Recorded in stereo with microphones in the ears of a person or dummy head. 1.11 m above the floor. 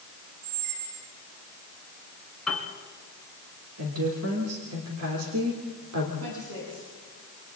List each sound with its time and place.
0.4 s a squeak: 55° right (ahead or behind), 2.5 m
2.5 s a piano: 5° left (ahead or behind), 4 m
3.8 s a woman speaking: 80° right, 3 m
6.2 s a woman speaking: 85° right, 8.5 m